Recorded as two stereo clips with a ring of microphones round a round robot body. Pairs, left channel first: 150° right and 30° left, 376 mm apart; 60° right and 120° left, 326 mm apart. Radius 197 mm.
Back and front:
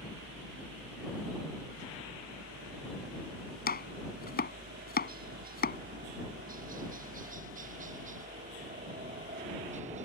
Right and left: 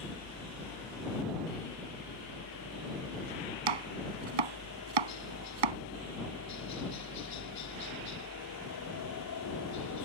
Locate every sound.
0.0 s a helicopter: 25° right; by 10.1 s 40° right
3.7 s chopping: 140° left